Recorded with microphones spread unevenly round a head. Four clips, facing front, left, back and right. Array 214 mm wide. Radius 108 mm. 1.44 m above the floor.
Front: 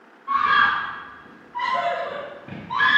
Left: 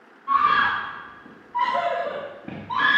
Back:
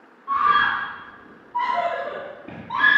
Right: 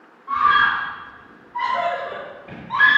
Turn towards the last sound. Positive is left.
turn(degrees=105)